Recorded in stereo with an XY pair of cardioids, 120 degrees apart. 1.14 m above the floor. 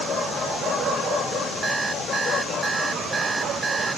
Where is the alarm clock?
25° right.